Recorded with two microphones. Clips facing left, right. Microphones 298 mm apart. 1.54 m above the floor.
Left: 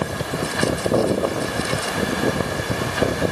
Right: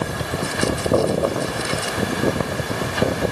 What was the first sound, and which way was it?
Only background noise.